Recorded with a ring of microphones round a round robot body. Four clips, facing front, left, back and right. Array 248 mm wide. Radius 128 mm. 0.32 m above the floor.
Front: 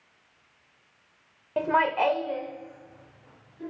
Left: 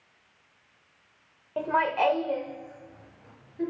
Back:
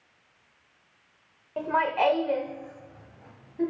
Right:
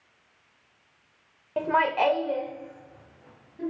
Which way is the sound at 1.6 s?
30° right.